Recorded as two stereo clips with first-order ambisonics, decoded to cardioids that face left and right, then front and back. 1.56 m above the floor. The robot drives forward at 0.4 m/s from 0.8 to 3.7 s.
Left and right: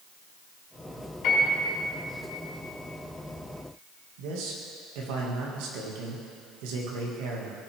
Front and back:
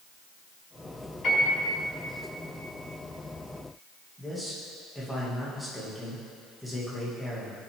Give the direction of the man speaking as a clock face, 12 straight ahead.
3 o'clock.